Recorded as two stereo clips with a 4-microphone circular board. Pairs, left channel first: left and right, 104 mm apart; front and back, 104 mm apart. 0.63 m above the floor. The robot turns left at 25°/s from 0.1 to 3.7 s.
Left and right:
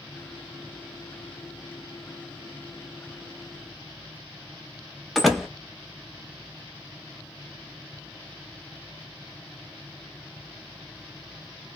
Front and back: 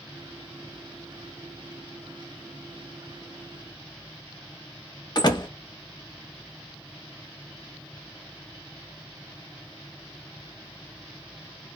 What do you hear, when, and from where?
5.2 s a door slam: straight ahead, 0.7 m